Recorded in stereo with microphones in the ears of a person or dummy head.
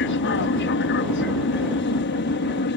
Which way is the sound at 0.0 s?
50° left (ahead or behind).